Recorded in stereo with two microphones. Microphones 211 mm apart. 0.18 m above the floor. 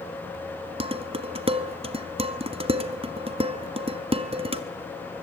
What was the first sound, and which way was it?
Dishes clattering, 25° right (ahead or behind).